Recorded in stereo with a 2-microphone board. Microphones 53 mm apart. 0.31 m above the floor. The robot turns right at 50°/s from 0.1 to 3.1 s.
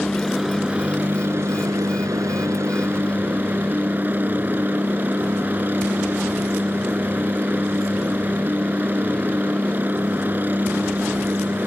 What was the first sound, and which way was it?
A helicopter, 170° left.